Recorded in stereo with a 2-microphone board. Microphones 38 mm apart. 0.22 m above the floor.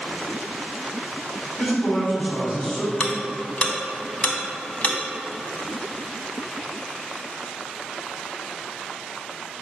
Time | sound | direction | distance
1.6 | a man speaking | 15° left (ahead or behind) | 1.9 m
3.0 | ticking | 35° left (ahead or behind) | 0.5 m